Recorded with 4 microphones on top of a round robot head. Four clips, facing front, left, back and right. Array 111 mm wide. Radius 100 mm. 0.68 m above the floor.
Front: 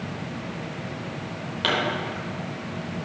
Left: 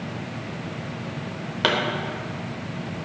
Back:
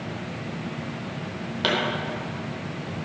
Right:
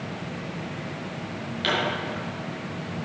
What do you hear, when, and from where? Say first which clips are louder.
1.6 s a pop: left 4 dB, even; 100° left, 1.4 m